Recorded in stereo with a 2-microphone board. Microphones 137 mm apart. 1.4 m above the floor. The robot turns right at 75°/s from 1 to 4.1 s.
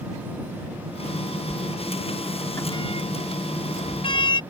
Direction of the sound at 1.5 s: 55° right (ahead or behind).